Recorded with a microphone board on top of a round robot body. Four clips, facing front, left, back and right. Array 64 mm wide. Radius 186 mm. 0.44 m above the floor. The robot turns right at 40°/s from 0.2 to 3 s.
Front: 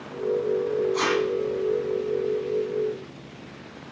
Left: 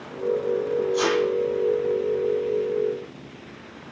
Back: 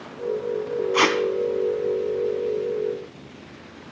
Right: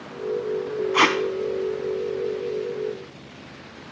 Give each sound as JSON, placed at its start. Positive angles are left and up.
{"t": 0.9, "sound": "tape being pulled", "azimuth_deg": -120, "distance_m": 1.3}